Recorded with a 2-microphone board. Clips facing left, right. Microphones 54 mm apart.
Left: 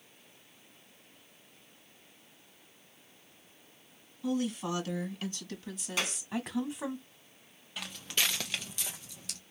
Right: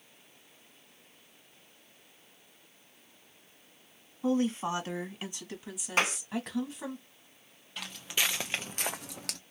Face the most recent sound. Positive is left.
turn(degrees=-75)  # may be behind; listen again after turning